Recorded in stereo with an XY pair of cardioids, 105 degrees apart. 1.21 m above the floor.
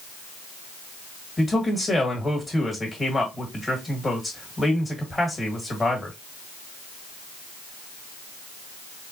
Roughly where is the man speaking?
Ahead.